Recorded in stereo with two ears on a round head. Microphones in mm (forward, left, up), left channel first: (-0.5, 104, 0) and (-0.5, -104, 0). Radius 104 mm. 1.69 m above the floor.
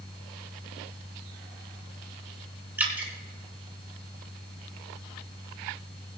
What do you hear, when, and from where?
2.8 s dripping: 10° right (ahead or behind), 2 m